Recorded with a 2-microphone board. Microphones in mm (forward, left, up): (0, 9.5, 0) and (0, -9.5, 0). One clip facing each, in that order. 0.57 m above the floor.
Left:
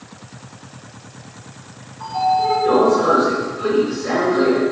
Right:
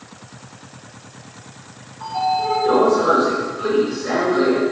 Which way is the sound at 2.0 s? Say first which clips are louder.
Left 3 dB; 5° left (ahead or behind).